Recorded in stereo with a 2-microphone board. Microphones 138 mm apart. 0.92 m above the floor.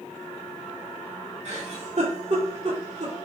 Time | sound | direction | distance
1.4 | a giggle | 55° right (ahead or behind) | 2.5 m